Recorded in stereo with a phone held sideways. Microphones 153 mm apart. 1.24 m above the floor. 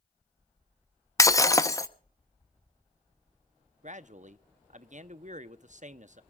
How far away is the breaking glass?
About 0.8 m.